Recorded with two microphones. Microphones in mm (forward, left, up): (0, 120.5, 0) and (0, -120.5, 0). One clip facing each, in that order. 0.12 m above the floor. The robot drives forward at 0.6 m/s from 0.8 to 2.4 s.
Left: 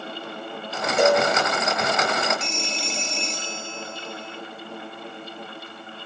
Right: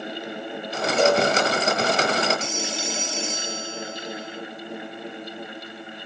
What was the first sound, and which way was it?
A cowbell, 15° left (ahead or behind).